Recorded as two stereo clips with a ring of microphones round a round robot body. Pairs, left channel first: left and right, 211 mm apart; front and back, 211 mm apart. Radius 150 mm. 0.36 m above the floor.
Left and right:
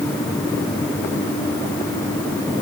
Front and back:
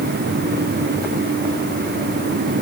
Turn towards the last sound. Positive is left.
No sound to turn to.